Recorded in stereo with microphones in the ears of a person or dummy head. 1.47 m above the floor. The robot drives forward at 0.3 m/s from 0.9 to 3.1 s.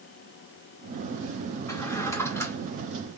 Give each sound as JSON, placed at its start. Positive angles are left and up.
{"t": 1.7, "sound": "a drawer", "side_deg": 15, "distance_m": 1.9}